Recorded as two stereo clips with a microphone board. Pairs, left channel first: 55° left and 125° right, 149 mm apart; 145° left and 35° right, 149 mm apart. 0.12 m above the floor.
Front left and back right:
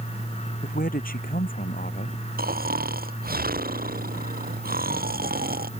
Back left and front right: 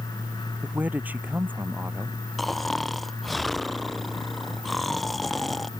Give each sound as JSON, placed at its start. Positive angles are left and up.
{"t": 0.6, "sound": "a man speaking", "azimuth_deg": 45}
{"t": 2.4, "sound": "snoring", "azimuth_deg": -125}